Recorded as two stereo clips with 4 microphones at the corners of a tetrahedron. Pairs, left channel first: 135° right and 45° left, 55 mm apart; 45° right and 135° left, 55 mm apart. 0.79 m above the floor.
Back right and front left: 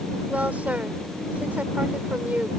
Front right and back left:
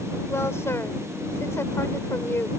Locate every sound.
0.3 s a woman speaking: 15° right